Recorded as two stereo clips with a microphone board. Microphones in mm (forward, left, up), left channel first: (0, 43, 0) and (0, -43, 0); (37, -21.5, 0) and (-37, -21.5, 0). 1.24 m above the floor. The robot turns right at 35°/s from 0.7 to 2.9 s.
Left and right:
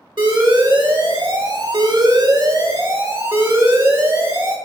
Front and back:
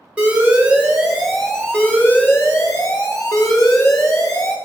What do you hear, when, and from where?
0.2 s an alarm: 110° right, 2.5 m; by 4.6 s 30° right, 2.5 m